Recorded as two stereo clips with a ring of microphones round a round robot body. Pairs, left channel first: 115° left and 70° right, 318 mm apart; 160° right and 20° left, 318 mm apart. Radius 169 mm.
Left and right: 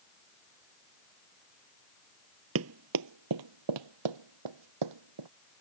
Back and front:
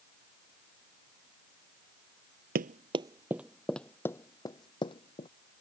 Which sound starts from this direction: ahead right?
Running footsteps, at 2.5 s.